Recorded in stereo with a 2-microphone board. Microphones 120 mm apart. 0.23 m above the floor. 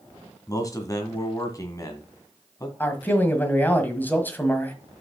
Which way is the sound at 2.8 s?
15° left (ahead or behind).